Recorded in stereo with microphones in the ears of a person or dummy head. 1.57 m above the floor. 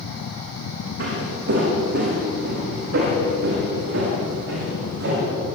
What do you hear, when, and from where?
1.0 s footsteps: 65° right (ahead or behind), 6.5 m; by 5.2 s 75° right (ahead or behind), 8.5 m